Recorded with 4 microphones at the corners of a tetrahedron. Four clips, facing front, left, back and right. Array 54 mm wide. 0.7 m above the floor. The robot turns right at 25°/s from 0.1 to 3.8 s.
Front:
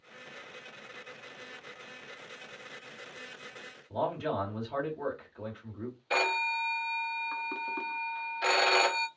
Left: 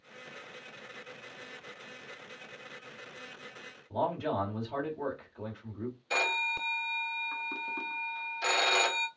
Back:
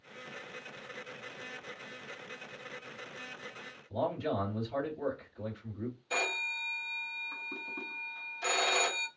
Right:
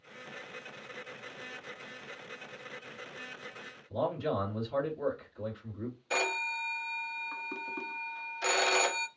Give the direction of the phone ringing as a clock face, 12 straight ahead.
12 o'clock.